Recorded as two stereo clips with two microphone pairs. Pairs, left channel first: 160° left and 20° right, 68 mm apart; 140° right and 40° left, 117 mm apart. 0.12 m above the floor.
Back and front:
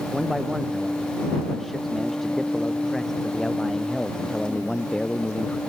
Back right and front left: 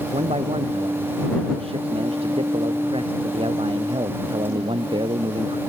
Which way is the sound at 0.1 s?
65° left.